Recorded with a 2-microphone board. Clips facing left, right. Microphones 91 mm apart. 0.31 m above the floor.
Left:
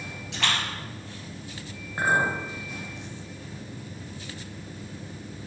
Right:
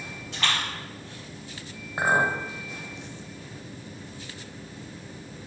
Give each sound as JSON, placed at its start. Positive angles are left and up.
{"t": 0.3, "sound": "a splash", "side_deg": 80, "distance_m": 2.5}
{"t": 2.0, "sound": "a clink", "side_deg": -15, "distance_m": 0.9}